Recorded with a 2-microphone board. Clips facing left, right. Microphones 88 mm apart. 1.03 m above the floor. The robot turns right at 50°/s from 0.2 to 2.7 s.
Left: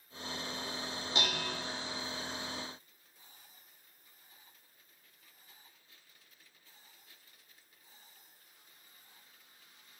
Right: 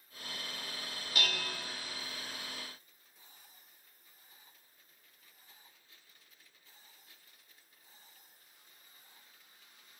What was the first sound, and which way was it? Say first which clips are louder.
Dishes clattering: left 1 dB; 25° left (ahead or behind).